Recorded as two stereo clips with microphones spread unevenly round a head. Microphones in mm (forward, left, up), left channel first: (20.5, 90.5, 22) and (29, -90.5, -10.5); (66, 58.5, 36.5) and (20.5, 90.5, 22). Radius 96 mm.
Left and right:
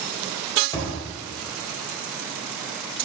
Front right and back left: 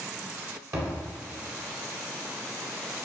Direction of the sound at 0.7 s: 120° left.